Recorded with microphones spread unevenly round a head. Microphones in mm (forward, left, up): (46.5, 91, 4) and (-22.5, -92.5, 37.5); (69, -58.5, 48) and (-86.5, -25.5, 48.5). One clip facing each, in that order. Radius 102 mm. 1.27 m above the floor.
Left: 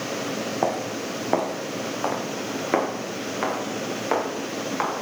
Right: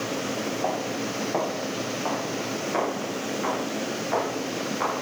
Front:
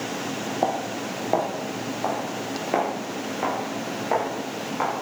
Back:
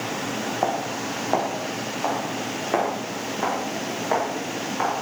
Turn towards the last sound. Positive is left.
turn(degrees=75)